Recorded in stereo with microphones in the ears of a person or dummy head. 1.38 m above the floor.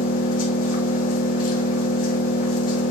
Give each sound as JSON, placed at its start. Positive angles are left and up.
{"t": 0.0, "sound": "an engine running", "side_deg": 45, "distance_m": 1.5}